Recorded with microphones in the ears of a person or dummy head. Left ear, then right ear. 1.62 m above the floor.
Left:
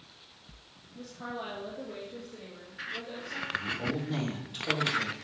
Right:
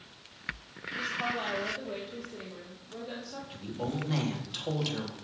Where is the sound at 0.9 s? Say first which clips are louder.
Right 8 dB; 65° right (ahead or behind), 1.4 m; by 3.4 s 40° right (ahead or behind), 3 m.